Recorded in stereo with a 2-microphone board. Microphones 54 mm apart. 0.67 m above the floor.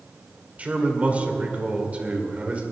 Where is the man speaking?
30° right (ahead or behind), 2 m.